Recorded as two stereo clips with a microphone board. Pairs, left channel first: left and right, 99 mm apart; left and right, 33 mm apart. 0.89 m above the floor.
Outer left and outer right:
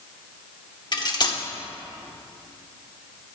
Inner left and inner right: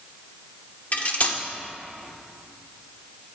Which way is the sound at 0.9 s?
45° left (ahead or behind).